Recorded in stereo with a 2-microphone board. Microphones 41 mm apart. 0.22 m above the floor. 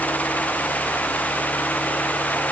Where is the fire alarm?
No fire alarm in this recording.